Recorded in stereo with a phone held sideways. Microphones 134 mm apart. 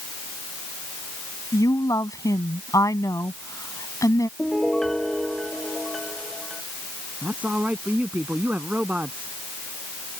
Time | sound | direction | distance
1.5 | a woman speaking | 25° left (ahead or behind) | ?
4.4 | a piano | 5° left (ahead or behind) | ?
7.2 | a man speaking | 10° right (ahead or behind) | ?